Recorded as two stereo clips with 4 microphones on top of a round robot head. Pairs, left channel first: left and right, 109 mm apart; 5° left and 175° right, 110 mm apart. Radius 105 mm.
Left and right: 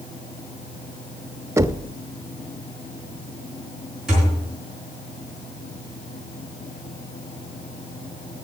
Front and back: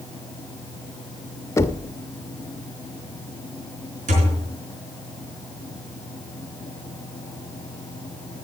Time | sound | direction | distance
1.6 | knocking | 45° right | 0.8 m
4.1 | a thud | 175° right | 4.5 m